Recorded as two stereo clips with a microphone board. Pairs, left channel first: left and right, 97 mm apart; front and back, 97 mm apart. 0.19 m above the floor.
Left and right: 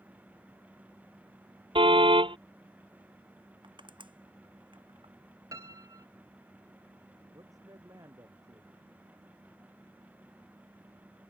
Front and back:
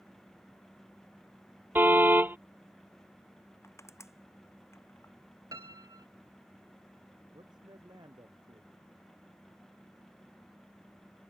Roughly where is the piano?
Behind right.